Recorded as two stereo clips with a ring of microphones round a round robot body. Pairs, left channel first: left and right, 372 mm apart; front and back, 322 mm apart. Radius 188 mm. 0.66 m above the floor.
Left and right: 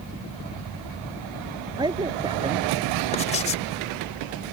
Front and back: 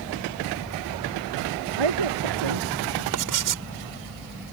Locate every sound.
1.8 s a man speaking: 170° right; by 3.0 s 165° right
3.1 s writing: 165° left